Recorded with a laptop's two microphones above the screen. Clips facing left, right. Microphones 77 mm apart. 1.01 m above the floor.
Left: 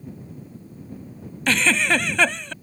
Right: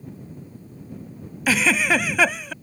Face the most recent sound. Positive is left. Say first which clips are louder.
# right 1 dB
turn(degrees=-10)  # may be behind; listen again after turning